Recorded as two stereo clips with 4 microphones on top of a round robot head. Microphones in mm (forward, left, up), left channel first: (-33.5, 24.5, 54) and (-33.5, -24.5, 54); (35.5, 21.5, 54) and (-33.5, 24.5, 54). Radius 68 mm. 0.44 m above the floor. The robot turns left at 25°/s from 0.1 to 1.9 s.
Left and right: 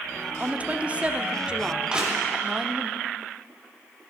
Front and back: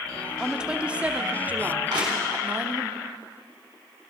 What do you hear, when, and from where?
0.4 s a woman speaking: 110° right, 0.8 m; by 2.9 s 150° right, 0.8 m
1.9 s crushing: 160° right, 3.5 m